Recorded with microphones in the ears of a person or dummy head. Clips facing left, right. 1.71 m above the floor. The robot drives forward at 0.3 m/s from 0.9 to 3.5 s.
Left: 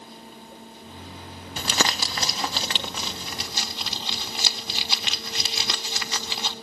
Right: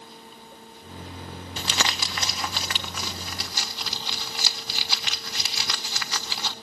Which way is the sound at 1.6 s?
45° left (ahead or behind).